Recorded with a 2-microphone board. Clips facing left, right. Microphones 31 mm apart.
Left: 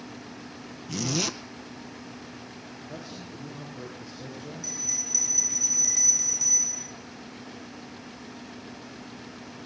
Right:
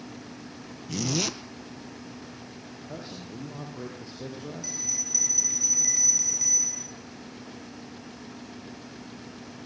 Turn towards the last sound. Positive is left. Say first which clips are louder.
# even
turn(degrees=-15)  # may be behind; listen again after turning